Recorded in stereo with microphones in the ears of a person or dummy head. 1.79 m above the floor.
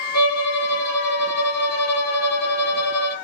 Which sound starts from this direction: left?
A violin, at 0.1 s.